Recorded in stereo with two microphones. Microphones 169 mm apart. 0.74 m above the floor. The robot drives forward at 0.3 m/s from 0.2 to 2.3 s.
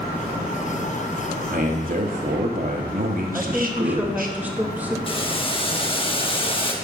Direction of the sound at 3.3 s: 10° right (ahead or behind).